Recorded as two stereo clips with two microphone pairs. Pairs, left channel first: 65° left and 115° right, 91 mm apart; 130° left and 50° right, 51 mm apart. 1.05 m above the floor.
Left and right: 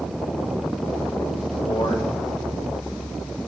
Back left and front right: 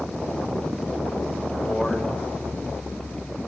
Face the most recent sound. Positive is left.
turn(degrees=40)